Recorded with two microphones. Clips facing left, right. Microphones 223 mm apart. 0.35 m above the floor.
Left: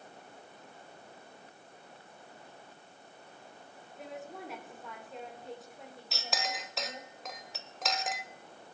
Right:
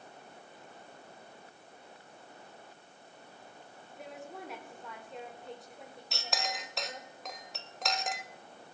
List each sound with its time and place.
4.0 s a woman speaking: centre (ahead or behind), 1.5 m
6.1 s a clink: centre (ahead or behind), 0.7 m